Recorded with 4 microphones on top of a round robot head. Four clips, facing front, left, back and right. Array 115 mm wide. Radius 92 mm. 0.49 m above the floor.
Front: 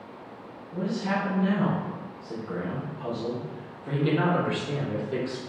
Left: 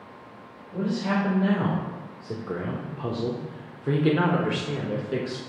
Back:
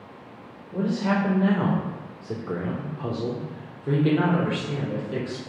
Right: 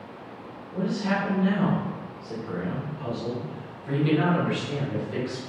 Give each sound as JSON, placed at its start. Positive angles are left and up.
{"t": 0.7, "sound": "a man speaking", "azimuth_deg": 175, "distance_m": 1.8}